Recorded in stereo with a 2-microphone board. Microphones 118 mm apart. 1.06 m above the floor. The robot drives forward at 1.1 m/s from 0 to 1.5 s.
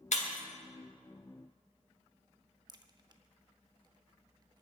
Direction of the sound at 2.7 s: 35° right (ahead or behind).